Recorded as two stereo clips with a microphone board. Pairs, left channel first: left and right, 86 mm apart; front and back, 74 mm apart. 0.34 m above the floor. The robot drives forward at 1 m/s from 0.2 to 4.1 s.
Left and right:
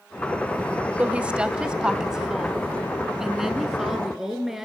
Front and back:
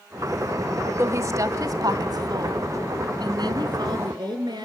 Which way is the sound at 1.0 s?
155° right.